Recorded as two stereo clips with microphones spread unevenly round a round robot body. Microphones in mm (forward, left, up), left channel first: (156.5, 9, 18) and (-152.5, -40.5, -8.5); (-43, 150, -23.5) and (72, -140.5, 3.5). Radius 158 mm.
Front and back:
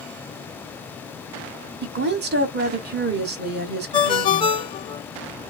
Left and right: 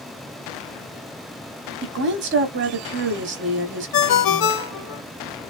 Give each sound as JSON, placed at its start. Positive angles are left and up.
{"t": 1.8, "sound": "a woman speaking", "azimuth_deg": -120, "distance_m": 1.1}
{"t": 3.9, "sound": "a ringtone", "azimuth_deg": 85, "distance_m": 0.8}